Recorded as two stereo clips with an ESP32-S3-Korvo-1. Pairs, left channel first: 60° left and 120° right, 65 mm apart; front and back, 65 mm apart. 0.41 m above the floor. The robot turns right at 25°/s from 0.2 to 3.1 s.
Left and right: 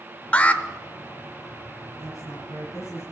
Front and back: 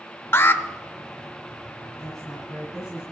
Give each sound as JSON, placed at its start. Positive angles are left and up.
{"t": 0.3, "sound": "an alarm", "azimuth_deg": 5, "distance_m": 0.7}
{"t": 2.0, "sound": "a woman speaking", "azimuth_deg": 80, "distance_m": 9.0}